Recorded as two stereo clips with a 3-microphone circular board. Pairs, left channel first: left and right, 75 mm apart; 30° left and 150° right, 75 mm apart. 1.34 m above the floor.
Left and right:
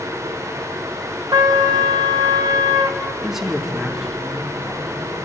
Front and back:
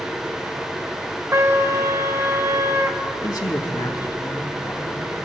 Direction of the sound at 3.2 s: Straight ahead.